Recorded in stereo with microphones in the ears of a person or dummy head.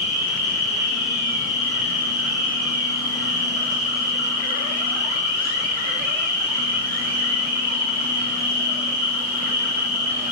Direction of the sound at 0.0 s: 25° left (ahead or behind).